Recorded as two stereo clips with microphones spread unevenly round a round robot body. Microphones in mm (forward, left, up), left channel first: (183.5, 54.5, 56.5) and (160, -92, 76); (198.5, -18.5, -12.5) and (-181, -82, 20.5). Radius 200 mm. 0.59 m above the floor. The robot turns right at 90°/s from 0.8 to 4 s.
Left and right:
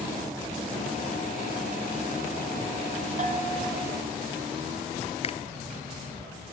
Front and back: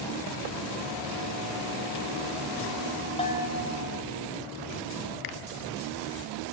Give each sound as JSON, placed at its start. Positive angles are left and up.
{"t": 3.2, "sound": "a bell", "azimuth_deg": -65, "distance_m": 3.0}
{"t": 5.2, "sound": "a finger snap", "azimuth_deg": 35, "distance_m": 0.8}